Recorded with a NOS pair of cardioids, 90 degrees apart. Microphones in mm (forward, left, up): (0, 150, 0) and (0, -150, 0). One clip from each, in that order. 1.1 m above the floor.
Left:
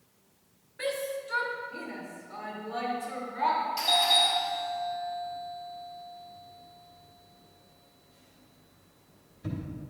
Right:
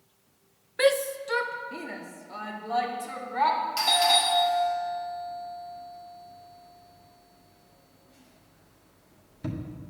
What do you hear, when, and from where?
0.8 s a shout: 65° right, 0.5 m; by 3.6 s 70° right, 2.5 m
3.8 s a doorbell: 70° right, 1.6 m